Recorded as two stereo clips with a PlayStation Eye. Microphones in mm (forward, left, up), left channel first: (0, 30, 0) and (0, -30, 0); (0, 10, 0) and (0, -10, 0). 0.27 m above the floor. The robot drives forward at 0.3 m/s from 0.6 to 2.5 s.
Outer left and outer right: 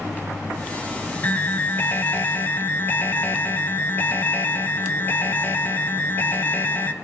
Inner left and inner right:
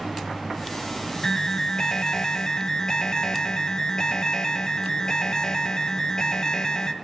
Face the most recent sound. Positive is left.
turn(degrees=30)  # may be behind; listen again after turning